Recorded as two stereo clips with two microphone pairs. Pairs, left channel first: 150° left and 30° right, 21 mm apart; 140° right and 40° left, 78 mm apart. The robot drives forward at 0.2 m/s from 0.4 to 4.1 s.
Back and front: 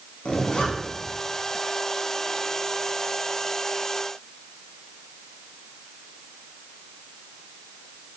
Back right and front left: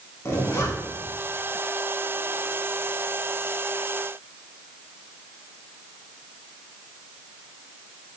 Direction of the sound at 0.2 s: 165° left.